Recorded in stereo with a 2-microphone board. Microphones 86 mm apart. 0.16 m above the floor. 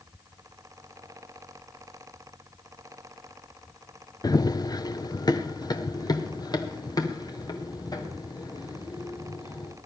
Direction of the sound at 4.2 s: 45° left (ahead or behind).